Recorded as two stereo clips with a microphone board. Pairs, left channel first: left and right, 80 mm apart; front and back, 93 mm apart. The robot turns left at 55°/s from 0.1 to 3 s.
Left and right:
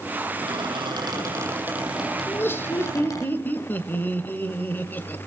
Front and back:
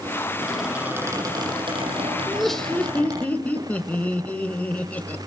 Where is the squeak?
85° right, 7 m; by 3.3 s 135° left, 7 m.